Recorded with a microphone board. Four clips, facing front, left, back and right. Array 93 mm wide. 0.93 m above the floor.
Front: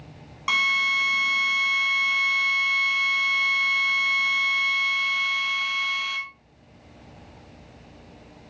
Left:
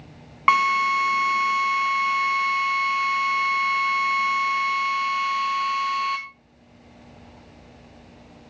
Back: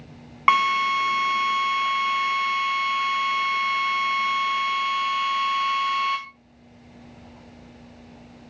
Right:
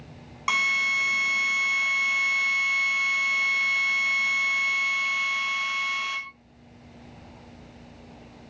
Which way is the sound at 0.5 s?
140° left.